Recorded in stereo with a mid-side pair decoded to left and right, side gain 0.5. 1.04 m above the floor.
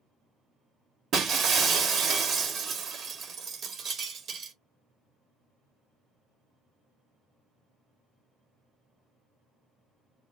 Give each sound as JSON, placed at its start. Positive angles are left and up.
{"t": 1.1, "sound": "breaking glass", "azimuth_deg": -55, "distance_m": 1.4}